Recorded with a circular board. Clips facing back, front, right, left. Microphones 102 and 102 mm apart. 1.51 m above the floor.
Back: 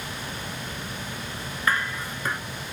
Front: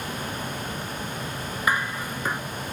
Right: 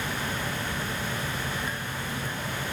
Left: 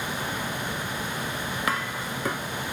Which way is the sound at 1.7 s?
75° left.